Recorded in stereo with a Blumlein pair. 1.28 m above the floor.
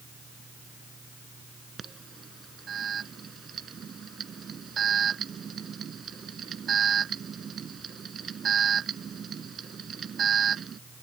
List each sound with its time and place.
0.0 s a fan: 15° right
1.8 s an alarm: 20° right